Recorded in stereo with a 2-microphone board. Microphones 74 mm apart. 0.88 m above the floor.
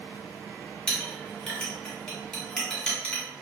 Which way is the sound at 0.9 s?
15° left (ahead or behind).